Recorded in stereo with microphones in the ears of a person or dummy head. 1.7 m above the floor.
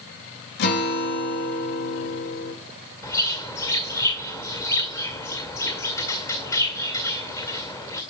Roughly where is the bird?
Centre.